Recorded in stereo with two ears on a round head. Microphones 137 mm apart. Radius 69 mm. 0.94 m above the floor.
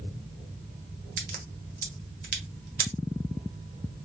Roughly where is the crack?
Right.